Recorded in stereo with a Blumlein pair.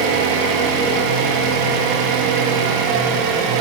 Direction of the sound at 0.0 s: 40° right.